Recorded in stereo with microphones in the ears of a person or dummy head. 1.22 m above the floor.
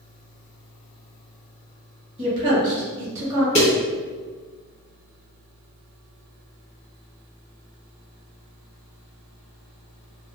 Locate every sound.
2.2 s a woman speaking: 45° right (ahead or behind), 1.4 m; by 3.5 s 30° right (ahead or behind), 0.8 m
3.5 s a snare drum: 40° left (ahead or behind), 1.6 m